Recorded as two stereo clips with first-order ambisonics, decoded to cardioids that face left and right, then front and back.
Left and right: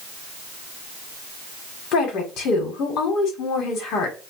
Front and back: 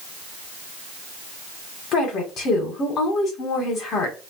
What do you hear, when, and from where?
1.9 s a woman speaking: 50° left, 1.6 m